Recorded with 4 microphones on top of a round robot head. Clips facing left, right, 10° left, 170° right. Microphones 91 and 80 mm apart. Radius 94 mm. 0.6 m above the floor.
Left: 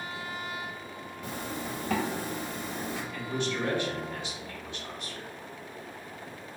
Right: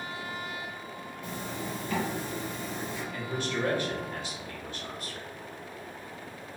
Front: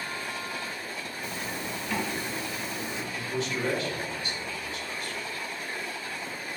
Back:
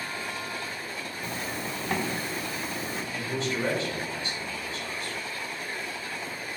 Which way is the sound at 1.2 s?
135° left.